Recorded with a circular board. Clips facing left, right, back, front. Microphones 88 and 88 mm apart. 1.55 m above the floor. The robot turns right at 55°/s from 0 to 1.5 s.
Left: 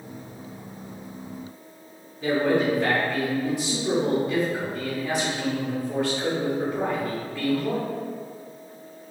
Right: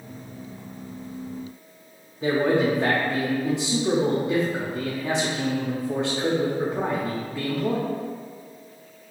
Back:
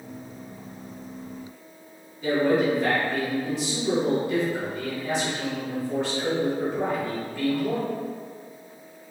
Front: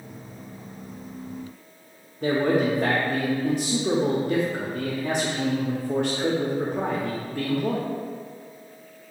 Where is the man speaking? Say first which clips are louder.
Right 1 dB, even; 25° right, 0.5 m.